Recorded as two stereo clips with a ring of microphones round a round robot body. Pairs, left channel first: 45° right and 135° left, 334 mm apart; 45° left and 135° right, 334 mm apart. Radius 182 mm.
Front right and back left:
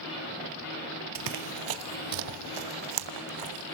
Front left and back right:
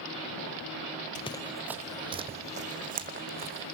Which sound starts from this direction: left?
Running footsteps, at 1.1 s.